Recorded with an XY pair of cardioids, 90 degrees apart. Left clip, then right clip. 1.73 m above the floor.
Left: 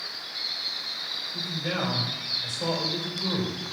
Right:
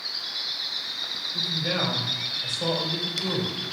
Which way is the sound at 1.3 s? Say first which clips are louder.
Right 6 dB; 10° right.